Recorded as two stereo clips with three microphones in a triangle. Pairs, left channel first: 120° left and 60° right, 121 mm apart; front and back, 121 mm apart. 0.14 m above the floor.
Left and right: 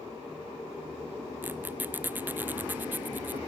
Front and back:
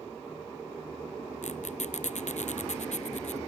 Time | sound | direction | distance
1.4 | a squeak | 15° left | ?